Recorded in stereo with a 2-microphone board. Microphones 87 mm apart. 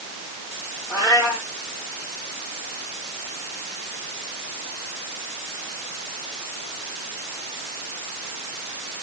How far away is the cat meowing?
About 5.5 m.